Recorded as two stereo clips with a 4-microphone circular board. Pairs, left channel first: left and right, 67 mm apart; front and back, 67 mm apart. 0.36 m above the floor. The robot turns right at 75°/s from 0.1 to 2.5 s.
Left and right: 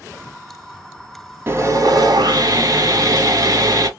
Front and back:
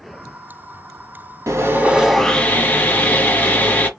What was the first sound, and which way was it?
Sawing, 140° right.